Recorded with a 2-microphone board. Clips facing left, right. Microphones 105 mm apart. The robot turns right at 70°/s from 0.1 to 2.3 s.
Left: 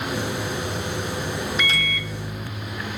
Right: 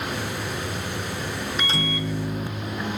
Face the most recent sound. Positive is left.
turn(degrees=-55)